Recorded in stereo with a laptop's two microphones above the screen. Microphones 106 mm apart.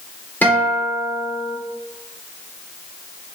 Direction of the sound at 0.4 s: 15° left (ahead or behind).